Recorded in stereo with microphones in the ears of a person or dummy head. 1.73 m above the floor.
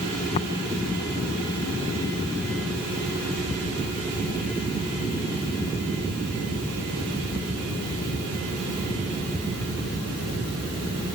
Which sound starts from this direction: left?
Tapping, at 0.3 s.